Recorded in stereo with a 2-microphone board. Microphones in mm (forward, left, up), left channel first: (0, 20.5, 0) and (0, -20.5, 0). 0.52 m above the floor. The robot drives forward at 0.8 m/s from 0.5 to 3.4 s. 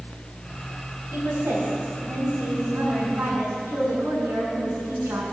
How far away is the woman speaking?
About 3.5 m.